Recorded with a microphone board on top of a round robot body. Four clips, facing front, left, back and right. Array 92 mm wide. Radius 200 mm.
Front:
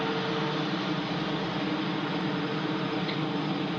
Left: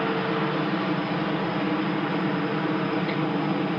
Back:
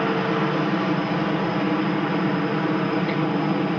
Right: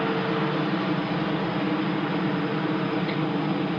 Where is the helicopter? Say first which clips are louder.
Even, back 7 dB; straight behind; by 3.8 s 175° left.